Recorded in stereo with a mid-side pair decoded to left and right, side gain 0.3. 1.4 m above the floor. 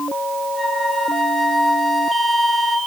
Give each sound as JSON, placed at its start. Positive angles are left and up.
{"t": 0.5, "sound": "a flute", "azimuth_deg": 45, "distance_m": 3.0}